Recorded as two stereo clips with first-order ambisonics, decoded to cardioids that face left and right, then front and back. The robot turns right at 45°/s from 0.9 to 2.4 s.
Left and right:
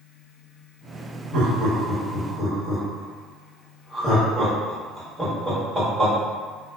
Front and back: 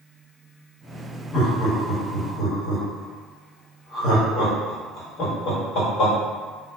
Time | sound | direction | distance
1.3 | laughter | 70° right | 1.2 m